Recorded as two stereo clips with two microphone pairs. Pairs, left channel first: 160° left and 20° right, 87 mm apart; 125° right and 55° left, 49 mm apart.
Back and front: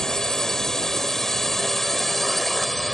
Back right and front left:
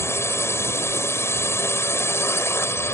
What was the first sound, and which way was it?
A drone, 115° right.